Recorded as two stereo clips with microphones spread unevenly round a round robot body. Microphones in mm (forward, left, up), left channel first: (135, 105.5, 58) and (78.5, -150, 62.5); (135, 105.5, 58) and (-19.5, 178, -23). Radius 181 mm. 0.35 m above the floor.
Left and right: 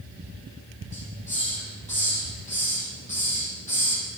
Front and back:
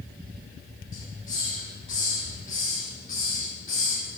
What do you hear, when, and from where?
0.9 s a hiss: 15° left, 8 m